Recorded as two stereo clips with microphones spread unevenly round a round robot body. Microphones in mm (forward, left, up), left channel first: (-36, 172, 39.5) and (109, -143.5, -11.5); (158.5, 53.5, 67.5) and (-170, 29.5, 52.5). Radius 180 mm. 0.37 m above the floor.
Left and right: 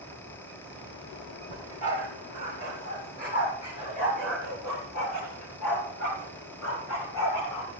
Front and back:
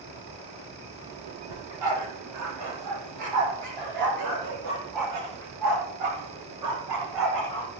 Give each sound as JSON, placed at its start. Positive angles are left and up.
{"t": 1.5, "sound": "a dog barking", "azimuth_deg": -170, "distance_m": 5.0}